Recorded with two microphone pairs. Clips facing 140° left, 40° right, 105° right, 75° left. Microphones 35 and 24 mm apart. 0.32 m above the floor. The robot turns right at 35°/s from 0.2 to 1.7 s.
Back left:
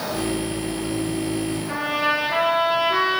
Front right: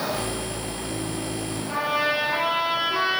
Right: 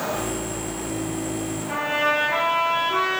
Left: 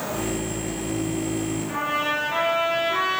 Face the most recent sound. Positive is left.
turn(degrees=155)